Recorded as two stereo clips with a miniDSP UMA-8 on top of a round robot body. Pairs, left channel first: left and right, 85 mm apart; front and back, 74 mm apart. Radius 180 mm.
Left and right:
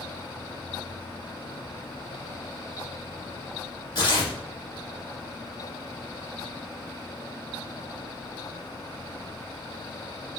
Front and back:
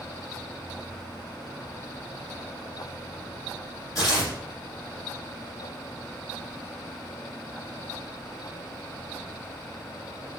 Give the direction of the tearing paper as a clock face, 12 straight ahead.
10 o'clock.